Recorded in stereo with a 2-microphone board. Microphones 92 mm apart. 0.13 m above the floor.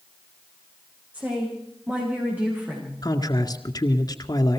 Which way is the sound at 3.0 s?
45° left (ahead or behind).